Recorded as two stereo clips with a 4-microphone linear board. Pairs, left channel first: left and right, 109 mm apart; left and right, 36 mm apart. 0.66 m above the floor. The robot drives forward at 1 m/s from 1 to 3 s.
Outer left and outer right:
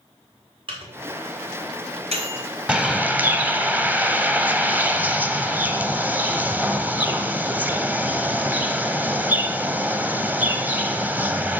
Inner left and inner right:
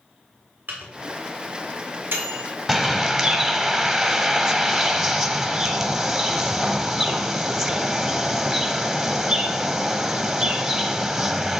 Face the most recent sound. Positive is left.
turn(degrees=-15)  # may be behind; listen again after turning